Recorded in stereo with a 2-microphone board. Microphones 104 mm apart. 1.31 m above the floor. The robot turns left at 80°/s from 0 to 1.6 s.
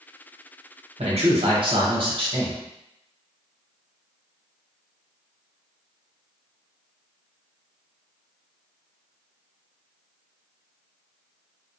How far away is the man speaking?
About 1.0 m.